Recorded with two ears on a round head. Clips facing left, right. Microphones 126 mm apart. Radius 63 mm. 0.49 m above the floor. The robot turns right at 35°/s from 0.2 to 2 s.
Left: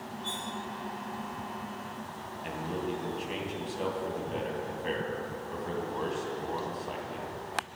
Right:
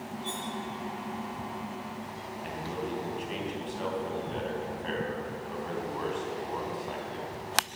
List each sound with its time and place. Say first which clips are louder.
0.2 s cutlery clinking: right 2 dB; 10° right (ahead or behind), 5.5 m; by 0.5 s 20° right (ahead or behind), 5.5 m
2.4 s a man speaking: left 1 dB; 5° left (ahead or behind), 3 m